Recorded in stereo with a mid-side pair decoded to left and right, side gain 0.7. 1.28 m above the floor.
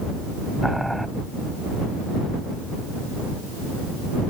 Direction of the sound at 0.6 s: 5° right.